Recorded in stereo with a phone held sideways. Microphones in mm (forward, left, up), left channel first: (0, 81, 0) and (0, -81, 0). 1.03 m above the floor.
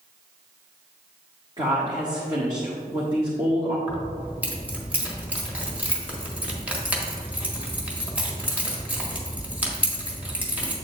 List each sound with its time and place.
1.6 s a woman speaking: 30° right (ahead or behind), 1.4 m
3.9 s keys jangling: 10° right (ahead or behind), 1.6 m